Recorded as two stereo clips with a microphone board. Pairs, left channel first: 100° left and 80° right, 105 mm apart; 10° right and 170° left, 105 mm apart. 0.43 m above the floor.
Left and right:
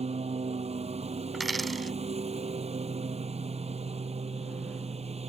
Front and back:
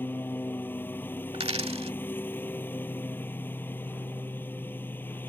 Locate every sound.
0.0 s a lawn mower: 85° right
1.3 s a dropped coin: 170° right